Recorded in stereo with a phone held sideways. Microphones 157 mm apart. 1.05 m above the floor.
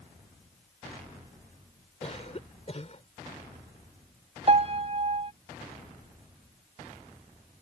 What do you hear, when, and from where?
2.0 s a cough: 45° left (ahead or behind)
4.5 s a piano: 40° right (ahead or behind)